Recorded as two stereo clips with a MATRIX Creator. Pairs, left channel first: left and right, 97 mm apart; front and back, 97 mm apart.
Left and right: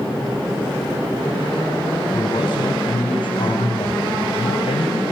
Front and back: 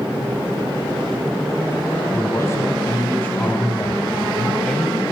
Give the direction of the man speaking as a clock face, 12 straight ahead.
10 o'clock.